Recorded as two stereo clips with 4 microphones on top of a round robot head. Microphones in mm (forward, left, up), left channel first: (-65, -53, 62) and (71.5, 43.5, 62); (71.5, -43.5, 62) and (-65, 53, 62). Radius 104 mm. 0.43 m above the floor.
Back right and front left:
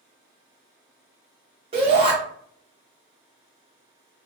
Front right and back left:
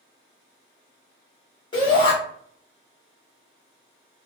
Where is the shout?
10° left, 1.1 m.